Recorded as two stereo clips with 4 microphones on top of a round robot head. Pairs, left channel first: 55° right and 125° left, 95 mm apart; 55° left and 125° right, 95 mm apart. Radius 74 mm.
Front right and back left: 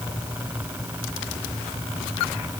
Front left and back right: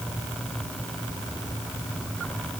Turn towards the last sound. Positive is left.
No sound to turn to.